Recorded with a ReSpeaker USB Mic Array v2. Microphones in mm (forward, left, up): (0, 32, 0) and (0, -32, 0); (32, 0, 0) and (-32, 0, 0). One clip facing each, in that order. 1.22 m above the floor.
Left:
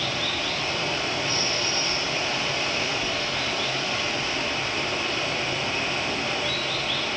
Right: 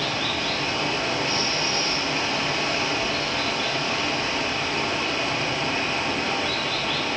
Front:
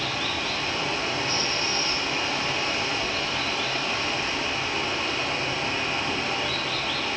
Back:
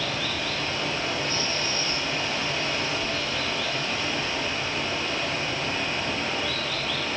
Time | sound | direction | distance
0.0 | running water | 85° right | 4 m